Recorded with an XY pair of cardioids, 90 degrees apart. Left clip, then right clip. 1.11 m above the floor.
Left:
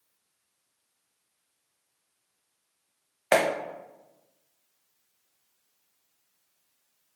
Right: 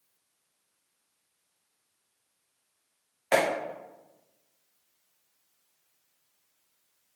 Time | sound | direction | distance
3.3 | a clap | 65° left | 0.6 m